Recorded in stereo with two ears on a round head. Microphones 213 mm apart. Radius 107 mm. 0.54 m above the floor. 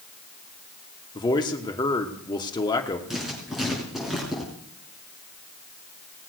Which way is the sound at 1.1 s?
20° left (ahead or behind).